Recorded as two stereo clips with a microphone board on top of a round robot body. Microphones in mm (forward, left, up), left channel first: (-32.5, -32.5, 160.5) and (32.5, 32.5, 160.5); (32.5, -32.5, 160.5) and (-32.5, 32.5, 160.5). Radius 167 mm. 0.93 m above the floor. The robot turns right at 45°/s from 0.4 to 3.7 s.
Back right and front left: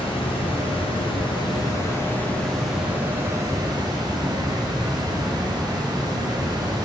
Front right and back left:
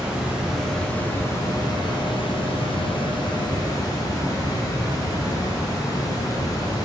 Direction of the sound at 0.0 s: 145° right.